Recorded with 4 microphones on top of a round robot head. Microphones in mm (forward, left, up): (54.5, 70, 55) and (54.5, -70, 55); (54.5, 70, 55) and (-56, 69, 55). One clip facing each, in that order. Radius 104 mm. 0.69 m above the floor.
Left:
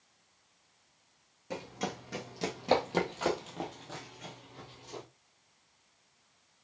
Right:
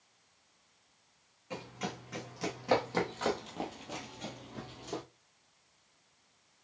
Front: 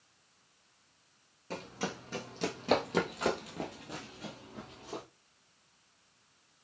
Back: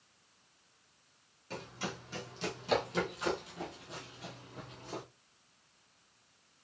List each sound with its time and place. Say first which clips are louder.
1.5 s running footsteps: left 3 dB, front 3 dB; 40° left, 1.9 m; by 5.0 s 85° right, 1.1 m